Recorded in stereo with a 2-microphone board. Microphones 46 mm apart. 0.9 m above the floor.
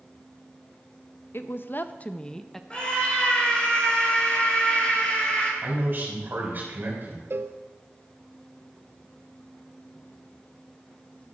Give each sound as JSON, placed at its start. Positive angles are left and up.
{"t": 1.3, "sound": "a woman speaking", "side_deg": 60, "distance_m": 0.6}
{"t": 2.7, "sound": "a scream", "side_deg": 25, "distance_m": 4.5}
{"t": 5.6, "sound": "a man speaking", "side_deg": -45, "distance_m": 4.0}
{"t": 7.3, "sound": "a cowbell", "side_deg": -60, "distance_m": 0.5}